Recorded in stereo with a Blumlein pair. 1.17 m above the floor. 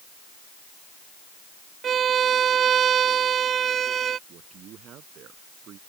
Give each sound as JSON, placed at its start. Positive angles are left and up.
{"t": 1.8, "sound": "a violin", "azimuth_deg": -25}
{"t": 4.3, "sound": "a man speaking", "azimuth_deg": -30}